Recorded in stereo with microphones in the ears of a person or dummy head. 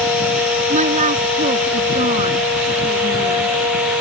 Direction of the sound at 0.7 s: 45° right (ahead or behind).